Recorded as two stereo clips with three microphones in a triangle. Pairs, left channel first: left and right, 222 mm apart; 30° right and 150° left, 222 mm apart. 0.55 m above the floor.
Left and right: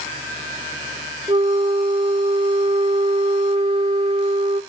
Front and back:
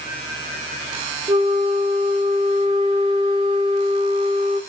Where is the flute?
145° right, 0.5 m.